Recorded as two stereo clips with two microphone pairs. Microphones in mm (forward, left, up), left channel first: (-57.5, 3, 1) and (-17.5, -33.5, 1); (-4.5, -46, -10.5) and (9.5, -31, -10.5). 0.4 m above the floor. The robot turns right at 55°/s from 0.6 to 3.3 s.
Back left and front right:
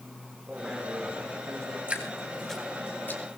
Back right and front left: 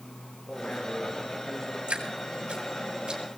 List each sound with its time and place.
0.5 s a man speaking: 120° right, 5.5 m; by 1.8 s 55° right, 5.5 m
1.9 s dripping: 20° left, 3 m; by 3.2 s 95° left, 3 m